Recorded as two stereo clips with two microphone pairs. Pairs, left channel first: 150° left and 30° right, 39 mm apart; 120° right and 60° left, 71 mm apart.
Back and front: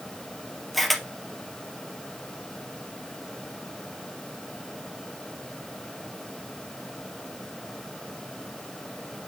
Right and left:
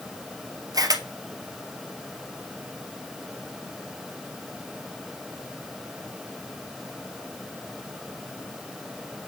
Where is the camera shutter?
65° left, 1.7 m.